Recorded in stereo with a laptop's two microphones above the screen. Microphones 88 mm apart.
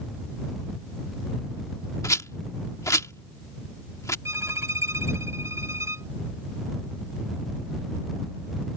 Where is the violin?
30° right (ahead or behind).